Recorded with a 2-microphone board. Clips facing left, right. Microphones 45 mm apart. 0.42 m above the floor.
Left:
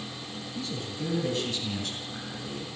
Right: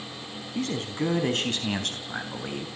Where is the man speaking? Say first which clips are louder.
Right 7 dB; 65° right (ahead or behind), 4 m.